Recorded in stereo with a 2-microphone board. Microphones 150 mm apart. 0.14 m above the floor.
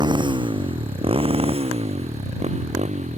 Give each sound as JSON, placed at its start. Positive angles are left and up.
{"t": 0.0, "sound": "a motorcycle", "side_deg": -30}